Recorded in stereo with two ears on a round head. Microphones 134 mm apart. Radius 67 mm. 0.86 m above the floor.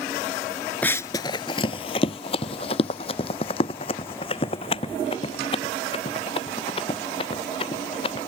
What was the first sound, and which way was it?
Running footsteps, 10° left (ahead or behind).